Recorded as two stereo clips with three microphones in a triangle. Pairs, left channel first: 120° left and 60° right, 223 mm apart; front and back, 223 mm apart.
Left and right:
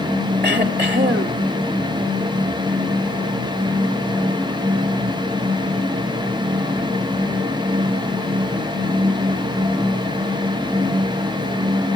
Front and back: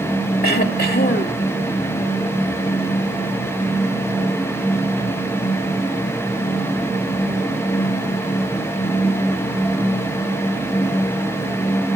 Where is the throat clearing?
35° right, 1.7 m.